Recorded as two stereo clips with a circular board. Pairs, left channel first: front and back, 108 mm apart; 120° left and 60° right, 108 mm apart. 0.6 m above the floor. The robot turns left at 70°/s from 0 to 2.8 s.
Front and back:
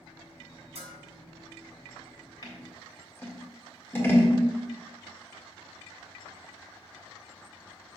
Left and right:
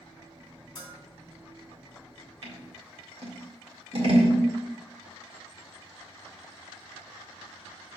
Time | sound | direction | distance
0.8 | a bell | 160° left | 2.5 m
2.4 | scissors | 40° right | 1.7 m